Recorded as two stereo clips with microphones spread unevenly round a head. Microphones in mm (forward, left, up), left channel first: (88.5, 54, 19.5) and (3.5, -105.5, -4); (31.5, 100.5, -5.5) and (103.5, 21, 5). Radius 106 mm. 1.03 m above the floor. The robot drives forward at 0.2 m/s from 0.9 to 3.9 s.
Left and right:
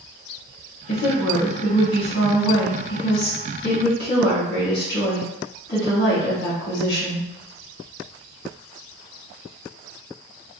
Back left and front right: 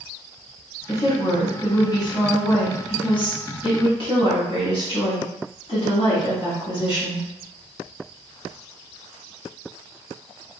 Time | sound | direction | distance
0.9 | a woman speaking | 80° left | 1.3 m